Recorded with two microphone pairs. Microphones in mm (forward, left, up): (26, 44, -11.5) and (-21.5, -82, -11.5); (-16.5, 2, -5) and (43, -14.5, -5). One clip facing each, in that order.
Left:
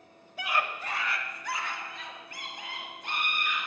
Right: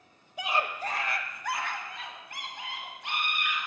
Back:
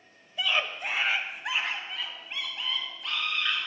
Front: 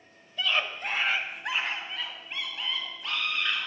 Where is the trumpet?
I don't hear a trumpet.